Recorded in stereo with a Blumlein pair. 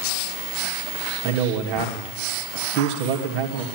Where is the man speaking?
45° right, 2.5 m.